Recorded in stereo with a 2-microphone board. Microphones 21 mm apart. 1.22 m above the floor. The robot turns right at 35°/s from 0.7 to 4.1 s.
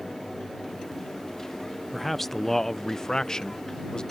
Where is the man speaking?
10° left; by 4.0 s 85° left.